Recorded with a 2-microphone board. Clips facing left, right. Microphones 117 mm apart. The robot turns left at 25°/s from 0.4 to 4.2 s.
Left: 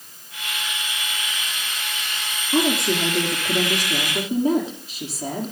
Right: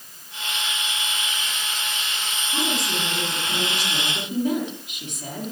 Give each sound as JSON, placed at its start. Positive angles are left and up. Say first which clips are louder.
{"t": 2.5, "sound": "a woman speaking", "louder": "left 7 dB", "azimuth_deg": 75, "distance_m": 4.0}